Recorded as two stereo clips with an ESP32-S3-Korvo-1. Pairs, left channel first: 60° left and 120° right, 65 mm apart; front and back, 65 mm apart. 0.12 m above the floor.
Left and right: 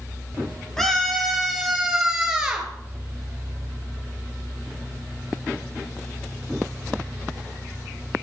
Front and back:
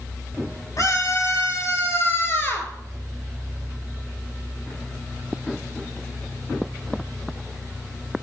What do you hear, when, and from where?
0.8 s a scream: 25° right, 3 m; by 2.7 s 50° right, 2.5 m